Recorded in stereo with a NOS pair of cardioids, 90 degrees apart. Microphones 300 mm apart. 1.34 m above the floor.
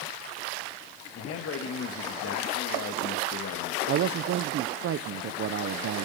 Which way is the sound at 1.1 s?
50° left.